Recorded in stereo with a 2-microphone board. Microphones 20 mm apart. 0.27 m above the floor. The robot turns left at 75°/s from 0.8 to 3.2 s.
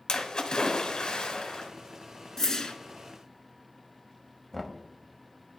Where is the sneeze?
No sneeze in this recording.